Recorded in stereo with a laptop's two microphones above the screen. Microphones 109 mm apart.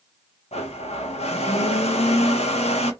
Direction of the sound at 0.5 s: 80° left.